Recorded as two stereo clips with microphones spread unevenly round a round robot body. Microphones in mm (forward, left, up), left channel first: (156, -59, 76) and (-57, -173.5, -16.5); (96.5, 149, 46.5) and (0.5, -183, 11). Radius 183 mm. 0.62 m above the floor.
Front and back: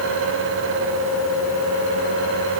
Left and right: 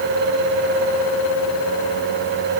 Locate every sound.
Only background noise.